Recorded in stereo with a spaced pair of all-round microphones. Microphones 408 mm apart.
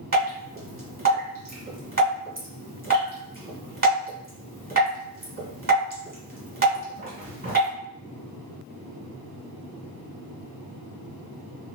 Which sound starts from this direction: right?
Dripping, at 0.1 s.